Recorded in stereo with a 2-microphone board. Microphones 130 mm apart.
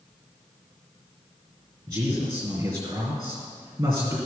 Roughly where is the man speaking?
Right.